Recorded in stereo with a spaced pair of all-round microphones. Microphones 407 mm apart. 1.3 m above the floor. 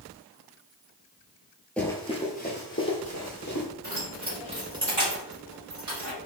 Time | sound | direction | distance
1.8 | running footsteps | 5° left (ahead or behind) | 1.6 m
3.8 | keys jangling | 75° right (ahead or behind) | 2.5 m